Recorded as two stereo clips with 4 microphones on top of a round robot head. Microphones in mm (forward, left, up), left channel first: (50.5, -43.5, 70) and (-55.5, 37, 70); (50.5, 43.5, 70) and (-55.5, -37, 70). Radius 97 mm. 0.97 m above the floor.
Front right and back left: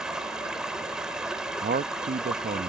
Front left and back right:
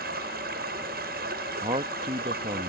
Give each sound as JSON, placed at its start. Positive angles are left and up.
{"t": 0.0, "sound": "running water", "azimuth_deg": -130}
{"t": 1.6, "sound": "a man speaking", "azimuth_deg": 165}